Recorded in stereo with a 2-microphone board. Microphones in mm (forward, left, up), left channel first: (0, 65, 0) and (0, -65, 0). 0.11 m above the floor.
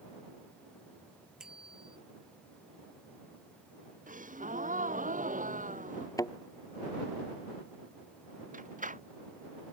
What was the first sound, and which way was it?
A bicycle bell, 5° right (ahead or behind).